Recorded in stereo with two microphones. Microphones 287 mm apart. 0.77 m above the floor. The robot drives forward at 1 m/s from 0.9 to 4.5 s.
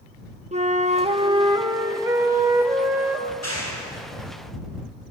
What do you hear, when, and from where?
0.5 s a flute: 25° right (ahead or behind), 0.8 m; by 3.2 s 5° right (ahead or behind), 3 m
3.3 s a clap: 65° left (ahead or behind), 7.5 m; by 4.7 s 75° left (ahead or behind), 7 m